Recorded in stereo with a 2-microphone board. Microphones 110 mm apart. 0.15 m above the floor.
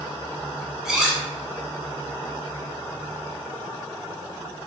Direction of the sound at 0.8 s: 5° right (ahead or behind).